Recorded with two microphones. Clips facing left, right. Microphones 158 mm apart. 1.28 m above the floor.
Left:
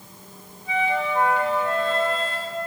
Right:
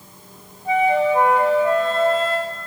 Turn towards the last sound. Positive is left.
turn(degrees=-40)  # may be behind; listen again after turning